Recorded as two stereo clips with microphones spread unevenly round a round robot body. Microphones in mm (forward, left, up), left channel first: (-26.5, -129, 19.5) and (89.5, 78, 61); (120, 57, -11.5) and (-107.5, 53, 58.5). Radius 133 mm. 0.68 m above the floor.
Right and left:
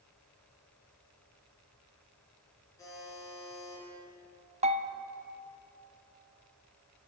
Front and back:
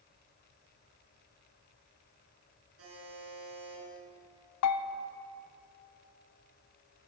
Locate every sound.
2.8 s a buzzer: 160° left, 5 m
4.6 s a bell: 5° right, 0.6 m